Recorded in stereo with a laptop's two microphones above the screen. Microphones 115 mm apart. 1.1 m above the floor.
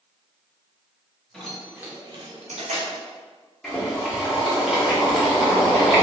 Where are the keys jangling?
5° left (ahead or behind), 1.3 m; by 3.0 s 75° right (ahead or behind), 1.0 m.